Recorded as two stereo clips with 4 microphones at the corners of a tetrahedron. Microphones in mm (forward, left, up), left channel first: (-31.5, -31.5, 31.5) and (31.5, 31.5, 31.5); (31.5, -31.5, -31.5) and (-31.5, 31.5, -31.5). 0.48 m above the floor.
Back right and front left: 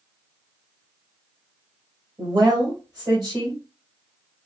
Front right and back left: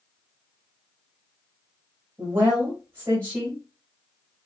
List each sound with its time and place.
2.2 s a woman speaking: 80° left, 2 m